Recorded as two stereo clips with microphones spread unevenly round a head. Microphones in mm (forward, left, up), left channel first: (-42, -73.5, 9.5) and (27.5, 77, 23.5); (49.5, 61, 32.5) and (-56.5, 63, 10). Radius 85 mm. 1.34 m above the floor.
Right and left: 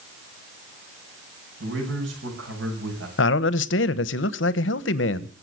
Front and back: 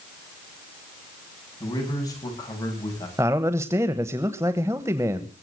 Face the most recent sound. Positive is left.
turn(degrees=-110)